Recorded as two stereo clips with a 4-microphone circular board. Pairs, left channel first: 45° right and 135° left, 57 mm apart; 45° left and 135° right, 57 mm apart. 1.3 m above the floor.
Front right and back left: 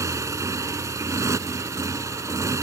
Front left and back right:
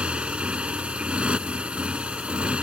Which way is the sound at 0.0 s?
155° left.